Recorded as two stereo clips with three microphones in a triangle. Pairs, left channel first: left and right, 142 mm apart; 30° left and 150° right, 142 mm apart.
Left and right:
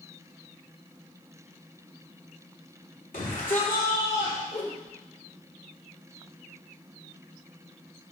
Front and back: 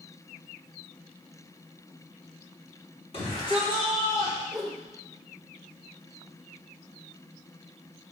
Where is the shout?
75° left, 4 m; by 4.4 s 95° left, 4 m.